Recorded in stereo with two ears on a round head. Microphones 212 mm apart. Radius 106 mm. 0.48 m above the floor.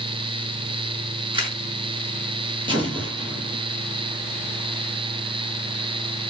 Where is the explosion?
20° right (ahead or behind), 7.5 m.